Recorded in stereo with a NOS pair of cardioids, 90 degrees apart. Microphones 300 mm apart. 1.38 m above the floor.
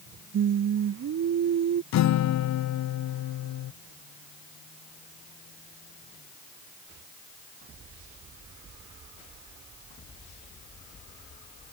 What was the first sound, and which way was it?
Singing, 60° right.